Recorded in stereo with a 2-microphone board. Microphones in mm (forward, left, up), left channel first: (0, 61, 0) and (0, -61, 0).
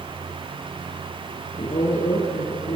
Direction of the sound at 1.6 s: 60° left (ahead or behind).